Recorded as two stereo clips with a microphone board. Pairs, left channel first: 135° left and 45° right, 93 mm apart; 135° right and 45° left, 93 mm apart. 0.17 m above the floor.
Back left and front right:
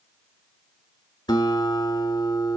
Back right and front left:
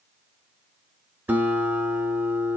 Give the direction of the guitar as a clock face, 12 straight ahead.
8 o'clock.